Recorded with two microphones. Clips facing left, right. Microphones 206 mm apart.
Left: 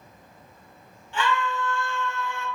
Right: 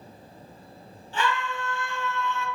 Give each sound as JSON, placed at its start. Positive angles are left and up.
{"t": 1.1, "sound": "a scream", "side_deg": -35, "distance_m": 1.6}